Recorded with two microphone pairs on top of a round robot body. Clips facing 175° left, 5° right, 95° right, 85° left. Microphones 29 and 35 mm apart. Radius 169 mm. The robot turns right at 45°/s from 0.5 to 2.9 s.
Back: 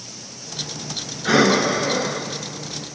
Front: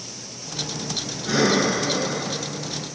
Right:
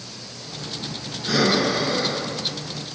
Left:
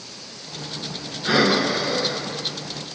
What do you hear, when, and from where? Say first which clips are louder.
1.2 s breathing: back 4 dB, left 1 dB; 150° left, 0.7 m; by 2.3 s 165° right, 0.7 m